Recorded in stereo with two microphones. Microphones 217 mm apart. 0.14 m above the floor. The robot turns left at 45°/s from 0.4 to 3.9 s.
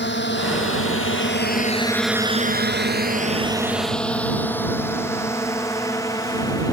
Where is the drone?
55° left (ahead or behind); by 6.7 s 15° left (ahead or behind).